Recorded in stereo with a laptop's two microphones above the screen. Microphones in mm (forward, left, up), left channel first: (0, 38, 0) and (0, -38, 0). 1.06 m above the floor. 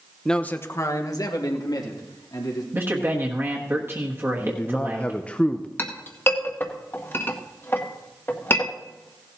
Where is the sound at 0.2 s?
5° left (ahead or behind), 0.8 m; by 2.6 s 70° left (ahead or behind), 3.5 m.